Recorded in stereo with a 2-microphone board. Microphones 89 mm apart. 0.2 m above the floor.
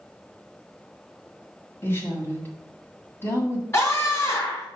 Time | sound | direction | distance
1.8 | a woman speaking | 25° left (ahead or behind) | 1.7 m
3.7 | a scream | 30° left (ahead or behind) | 2 m